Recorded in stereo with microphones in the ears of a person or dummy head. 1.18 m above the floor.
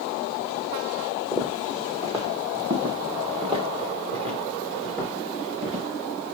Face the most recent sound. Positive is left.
turn(degrees=-35)  # may be behind; listen again after turning